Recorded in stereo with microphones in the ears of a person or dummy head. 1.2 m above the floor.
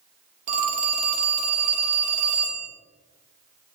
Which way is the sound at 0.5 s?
40° right (ahead or behind).